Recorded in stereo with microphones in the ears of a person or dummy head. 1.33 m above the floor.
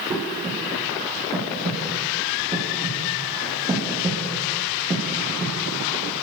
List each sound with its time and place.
0.1 s breathing: 15° right (ahead or behind), 8 m